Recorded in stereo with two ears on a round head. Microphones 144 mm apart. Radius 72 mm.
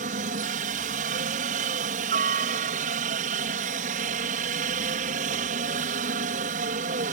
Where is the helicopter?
55° right (ahead or behind).